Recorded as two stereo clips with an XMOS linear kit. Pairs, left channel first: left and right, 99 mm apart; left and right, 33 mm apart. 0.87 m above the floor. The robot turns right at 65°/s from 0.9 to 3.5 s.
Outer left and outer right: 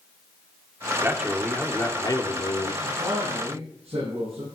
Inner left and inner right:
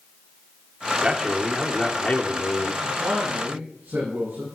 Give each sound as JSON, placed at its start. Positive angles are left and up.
{"t": 1.0, "sound": "a man speaking", "azimuth_deg": -25, "distance_m": 2.5}
{"t": 2.8, "sound": "a man speaking", "azimuth_deg": -150, "distance_m": 8.5}